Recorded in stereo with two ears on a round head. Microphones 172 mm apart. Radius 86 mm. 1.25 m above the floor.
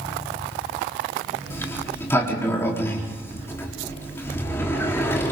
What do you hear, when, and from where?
1.5 s a sliding door: 15° left (ahead or behind), 3.5 m